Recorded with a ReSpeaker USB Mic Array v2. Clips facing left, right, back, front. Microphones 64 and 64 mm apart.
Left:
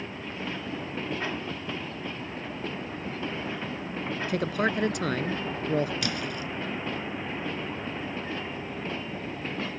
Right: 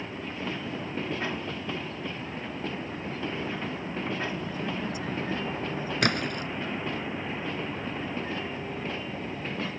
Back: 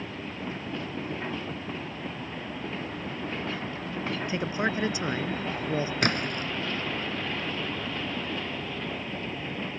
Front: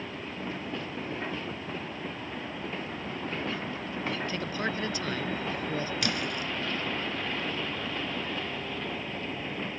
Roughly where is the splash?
Behind right.